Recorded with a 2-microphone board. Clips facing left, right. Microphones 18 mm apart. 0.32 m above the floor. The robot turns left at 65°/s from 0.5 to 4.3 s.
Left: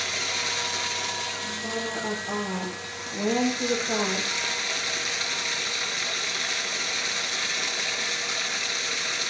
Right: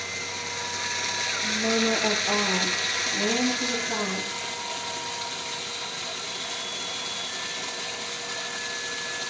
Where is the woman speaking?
95° right, 9 m; by 4.3 s 80° left, 9 m.